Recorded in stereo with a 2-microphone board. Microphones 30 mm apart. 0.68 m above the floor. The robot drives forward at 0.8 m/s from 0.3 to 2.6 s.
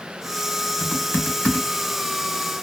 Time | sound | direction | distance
0.8 | typing on a keyboard | 65° left (ahead or behind) | 1.1 m